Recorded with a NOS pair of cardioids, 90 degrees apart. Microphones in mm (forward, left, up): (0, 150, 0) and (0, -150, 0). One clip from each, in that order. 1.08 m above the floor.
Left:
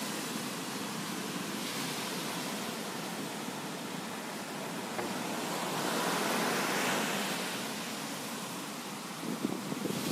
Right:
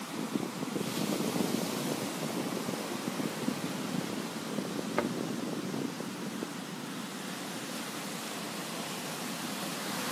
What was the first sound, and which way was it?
A thud, 55° right.